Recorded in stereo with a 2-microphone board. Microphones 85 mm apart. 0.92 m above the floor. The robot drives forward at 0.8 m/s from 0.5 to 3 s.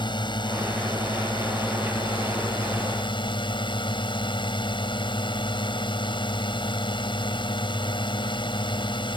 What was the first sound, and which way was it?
A drone, 65° left (ahead or behind).